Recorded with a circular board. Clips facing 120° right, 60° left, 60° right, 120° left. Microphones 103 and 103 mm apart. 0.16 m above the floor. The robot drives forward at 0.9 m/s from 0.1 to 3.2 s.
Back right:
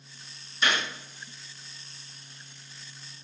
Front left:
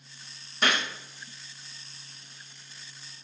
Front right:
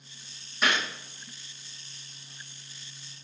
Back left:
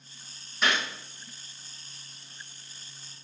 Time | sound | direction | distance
0.6 | a gunshot | 30° left | 5.5 m